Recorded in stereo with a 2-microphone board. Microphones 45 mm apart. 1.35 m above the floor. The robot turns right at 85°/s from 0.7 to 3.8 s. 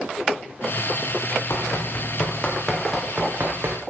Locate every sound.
1.5 s running footsteps: 65° left (ahead or behind), 3.5 m; by 3.8 s 60° right (ahead or behind), 3.5 m